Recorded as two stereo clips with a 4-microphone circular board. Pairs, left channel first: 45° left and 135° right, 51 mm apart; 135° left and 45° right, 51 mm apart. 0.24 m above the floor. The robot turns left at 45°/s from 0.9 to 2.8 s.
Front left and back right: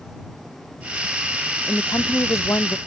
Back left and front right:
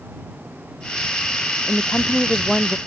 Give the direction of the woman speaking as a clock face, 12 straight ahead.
9 o'clock.